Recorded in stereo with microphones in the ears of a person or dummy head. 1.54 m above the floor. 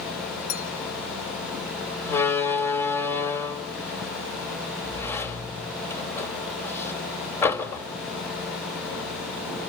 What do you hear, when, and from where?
0.5 s a clink: 75° left (ahead or behind), 2.5 m
2.0 s a door slam: 20° left (ahead or behind), 2.5 m